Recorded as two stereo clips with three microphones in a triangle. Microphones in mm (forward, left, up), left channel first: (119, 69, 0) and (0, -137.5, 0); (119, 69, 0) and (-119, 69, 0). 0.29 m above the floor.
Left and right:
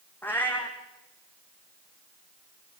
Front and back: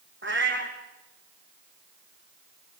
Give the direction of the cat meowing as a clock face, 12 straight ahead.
7 o'clock.